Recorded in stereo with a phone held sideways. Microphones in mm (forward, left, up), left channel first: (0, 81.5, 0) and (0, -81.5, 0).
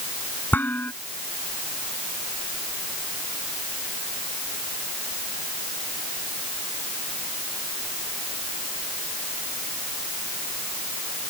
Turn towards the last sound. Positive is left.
turn(degrees=10)  # may be behind; listen again after turning